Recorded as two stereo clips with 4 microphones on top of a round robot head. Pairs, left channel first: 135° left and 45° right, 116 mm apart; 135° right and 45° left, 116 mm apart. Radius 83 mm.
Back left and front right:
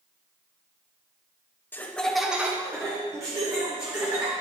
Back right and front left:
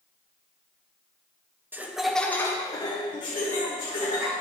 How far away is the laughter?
About 0.9 m.